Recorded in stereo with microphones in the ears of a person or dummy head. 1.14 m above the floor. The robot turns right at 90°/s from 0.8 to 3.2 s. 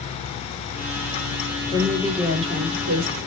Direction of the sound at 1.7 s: 150° left.